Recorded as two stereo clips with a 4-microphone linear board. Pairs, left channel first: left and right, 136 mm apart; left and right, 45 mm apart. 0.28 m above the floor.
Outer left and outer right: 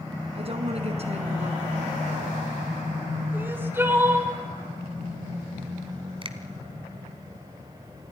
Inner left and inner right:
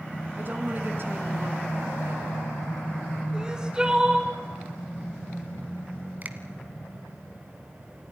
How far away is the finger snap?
About 1.6 m.